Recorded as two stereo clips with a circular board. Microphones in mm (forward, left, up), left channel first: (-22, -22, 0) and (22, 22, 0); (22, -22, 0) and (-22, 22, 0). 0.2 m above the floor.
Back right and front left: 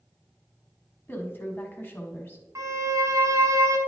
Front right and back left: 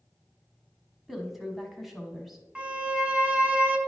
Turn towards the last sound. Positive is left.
turn(degrees=65)